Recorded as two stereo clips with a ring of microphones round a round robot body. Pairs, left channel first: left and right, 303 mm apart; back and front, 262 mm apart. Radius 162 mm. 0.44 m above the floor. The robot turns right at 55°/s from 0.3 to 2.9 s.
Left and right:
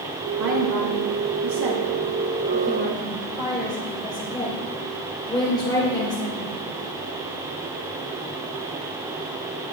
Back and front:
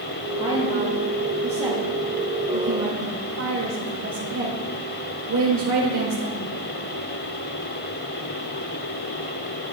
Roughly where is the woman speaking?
Behind right.